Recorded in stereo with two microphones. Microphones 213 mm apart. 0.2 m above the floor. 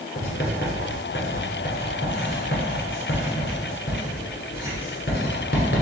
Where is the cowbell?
No cowbell in this recording.